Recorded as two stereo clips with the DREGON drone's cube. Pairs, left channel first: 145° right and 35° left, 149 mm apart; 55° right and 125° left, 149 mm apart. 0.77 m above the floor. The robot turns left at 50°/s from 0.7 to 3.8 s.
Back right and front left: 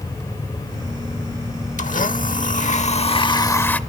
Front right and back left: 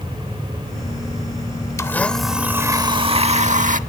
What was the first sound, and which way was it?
A blender, 125° right.